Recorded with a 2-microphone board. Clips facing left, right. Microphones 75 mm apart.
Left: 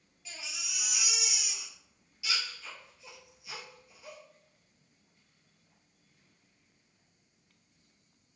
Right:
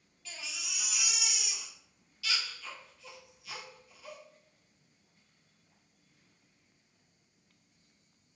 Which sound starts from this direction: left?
A baby crying, at 0.2 s.